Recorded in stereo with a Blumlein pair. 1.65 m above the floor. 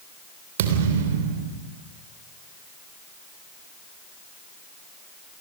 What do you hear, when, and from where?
0.6 s a thud: 55° right, 3 m